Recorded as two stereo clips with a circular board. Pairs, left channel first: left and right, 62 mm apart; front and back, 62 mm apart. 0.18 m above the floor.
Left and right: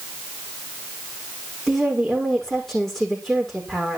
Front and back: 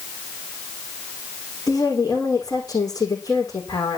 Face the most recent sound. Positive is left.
turn(degrees=0)